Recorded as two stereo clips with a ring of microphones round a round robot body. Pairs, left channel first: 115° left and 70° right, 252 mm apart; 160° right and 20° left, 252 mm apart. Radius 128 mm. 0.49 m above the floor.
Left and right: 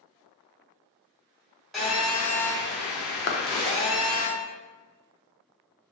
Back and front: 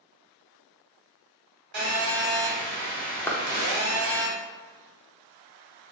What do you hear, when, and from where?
1.7 s a phone buzzing: 25° left, 1.6 m
3.3 s a clap: 125° left, 0.7 m